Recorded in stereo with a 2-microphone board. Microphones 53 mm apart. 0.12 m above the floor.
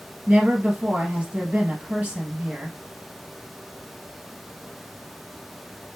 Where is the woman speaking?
25° right (ahead or behind), 2 m.